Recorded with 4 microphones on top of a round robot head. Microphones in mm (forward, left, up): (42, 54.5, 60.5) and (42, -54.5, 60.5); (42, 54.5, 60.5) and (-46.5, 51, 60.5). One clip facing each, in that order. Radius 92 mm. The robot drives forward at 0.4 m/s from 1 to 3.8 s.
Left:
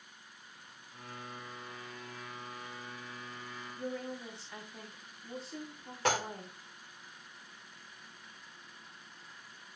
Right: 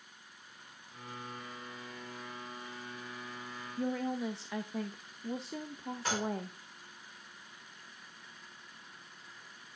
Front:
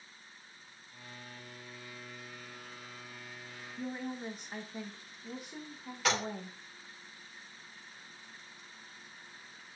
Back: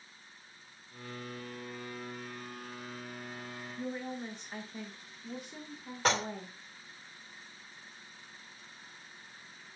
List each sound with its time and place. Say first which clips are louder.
3.8 s a woman speaking: right 6 dB, even; 80° right, 0.8 m
6.0 s dishes clattering: left 4 dB, back 2 dB; 130° left, 2 m